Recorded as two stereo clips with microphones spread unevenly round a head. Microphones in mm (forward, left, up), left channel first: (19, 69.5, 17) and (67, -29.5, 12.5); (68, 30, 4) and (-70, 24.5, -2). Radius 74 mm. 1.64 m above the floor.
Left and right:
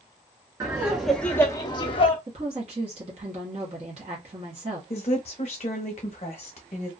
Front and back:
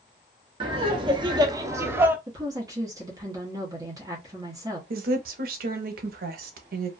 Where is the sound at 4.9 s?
165° left, 0.7 m.